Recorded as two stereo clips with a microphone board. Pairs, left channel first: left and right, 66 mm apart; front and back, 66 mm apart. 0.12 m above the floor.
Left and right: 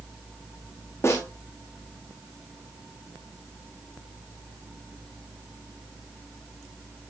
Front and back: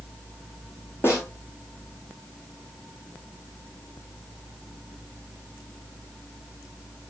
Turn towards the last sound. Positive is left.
turn(degrees=45)